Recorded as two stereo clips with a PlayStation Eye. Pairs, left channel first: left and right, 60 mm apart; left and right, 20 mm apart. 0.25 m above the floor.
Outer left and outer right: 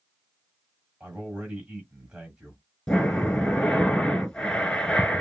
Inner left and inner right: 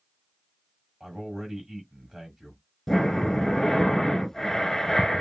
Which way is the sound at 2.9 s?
10° left (ahead or behind).